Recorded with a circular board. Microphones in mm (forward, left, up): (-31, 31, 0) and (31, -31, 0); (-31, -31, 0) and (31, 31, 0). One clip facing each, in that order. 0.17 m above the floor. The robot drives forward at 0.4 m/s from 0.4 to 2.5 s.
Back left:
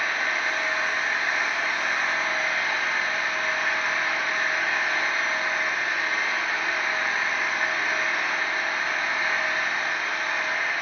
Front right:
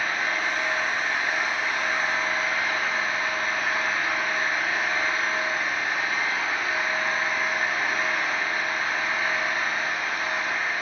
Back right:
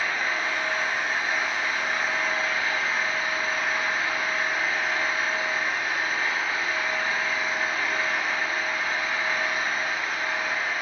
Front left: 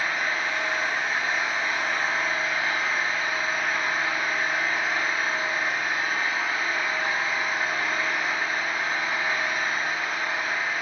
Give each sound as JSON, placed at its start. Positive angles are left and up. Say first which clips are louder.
{"t": 0.0, "sound": "an engine running", "louder": "even, even", "azimuth_deg": 70, "distance_m": 2.0}